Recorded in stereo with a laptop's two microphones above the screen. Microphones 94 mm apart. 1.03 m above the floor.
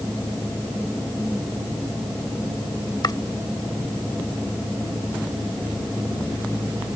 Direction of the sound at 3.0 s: 50° left (ahead or behind).